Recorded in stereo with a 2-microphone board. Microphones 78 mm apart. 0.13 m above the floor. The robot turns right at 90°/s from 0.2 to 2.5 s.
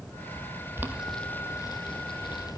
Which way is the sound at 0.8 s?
30° right (ahead or behind).